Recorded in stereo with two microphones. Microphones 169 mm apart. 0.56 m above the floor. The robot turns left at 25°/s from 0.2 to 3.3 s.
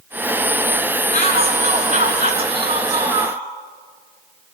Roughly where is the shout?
Right.